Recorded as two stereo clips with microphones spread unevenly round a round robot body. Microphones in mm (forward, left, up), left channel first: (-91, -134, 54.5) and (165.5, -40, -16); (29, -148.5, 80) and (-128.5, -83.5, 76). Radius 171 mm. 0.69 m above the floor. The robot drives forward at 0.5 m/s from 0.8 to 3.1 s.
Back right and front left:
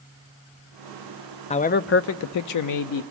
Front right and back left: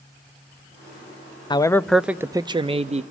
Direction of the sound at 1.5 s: 80° right.